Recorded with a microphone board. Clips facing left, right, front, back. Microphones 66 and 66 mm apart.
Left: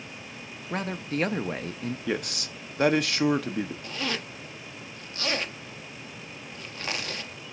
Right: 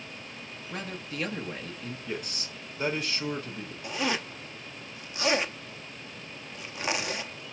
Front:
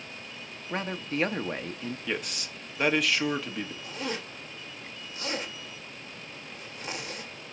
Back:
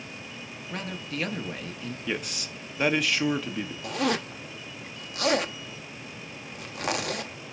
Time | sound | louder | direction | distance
0.7 | a man speaking | left 7 dB, front 4 dB | 55° left | 0.8 m
2.1 | a man speaking | left 6 dB, back 3 dB | 90° left | 1.0 m
3.8 | a zipper | right 2 dB, back 7 dB | 160° right | 0.8 m